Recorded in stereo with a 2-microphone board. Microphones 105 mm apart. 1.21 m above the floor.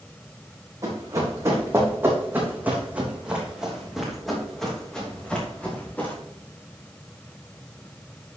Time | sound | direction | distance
0.8 | running footsteps | 35° right (ahead or behind) | 3.5 m